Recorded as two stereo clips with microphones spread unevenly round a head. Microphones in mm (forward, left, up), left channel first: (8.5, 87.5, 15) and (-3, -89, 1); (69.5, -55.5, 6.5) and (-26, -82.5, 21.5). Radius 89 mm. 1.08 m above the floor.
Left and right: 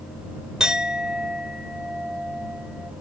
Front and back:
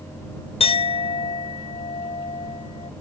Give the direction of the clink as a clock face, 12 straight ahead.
12 o'clock.